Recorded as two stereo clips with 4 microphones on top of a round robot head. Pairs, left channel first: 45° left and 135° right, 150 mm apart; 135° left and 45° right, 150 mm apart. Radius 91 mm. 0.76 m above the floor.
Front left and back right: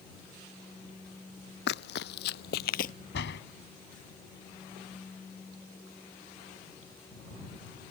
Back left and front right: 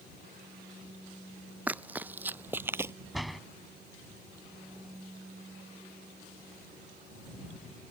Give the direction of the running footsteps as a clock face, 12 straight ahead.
11 o'clock.